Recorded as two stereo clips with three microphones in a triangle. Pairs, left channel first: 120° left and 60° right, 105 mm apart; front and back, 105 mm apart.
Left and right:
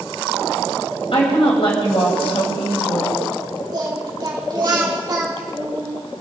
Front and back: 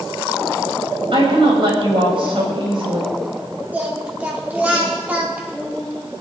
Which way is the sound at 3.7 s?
105° right.